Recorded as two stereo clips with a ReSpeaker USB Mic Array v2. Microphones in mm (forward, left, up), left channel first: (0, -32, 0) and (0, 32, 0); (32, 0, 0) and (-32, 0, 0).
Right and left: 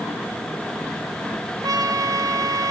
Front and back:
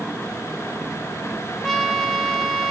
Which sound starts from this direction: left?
A trumpet, at 1.6 s.